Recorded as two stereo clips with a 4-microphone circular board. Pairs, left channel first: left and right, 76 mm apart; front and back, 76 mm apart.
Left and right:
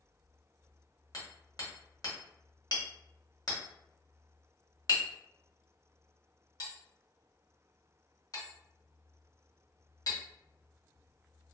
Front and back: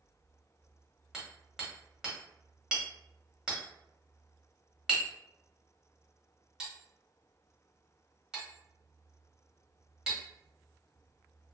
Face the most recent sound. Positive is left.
turn(degrees=100)